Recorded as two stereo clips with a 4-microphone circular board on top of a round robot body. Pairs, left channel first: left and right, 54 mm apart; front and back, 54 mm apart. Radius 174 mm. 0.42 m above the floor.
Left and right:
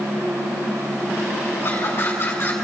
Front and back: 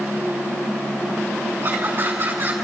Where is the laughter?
140° left, 5.5 m.